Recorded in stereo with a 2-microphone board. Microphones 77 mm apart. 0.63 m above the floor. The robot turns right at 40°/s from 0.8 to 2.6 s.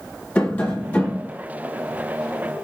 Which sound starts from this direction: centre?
Tapping, at 0.3 s.